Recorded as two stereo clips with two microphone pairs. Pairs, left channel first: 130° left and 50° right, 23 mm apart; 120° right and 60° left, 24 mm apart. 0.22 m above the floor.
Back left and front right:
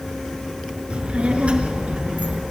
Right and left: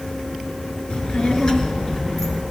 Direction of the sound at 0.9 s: 75° right.